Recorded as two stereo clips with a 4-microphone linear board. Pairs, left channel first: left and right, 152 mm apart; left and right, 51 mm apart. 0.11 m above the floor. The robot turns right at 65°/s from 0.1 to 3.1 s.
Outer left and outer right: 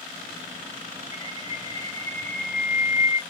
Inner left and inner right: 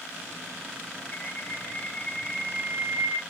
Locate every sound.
1.1 s a bird: 80° left, 1.3 m; by 3.2 s 150° right, 1.3 m